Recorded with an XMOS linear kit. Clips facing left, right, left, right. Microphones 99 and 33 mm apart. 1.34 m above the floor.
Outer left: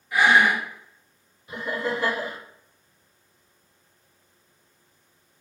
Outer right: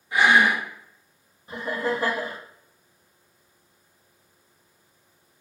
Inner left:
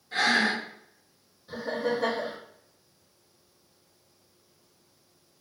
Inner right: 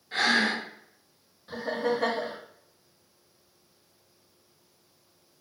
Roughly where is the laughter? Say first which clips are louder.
Outer right 1 dB, inner right 1 dB; right.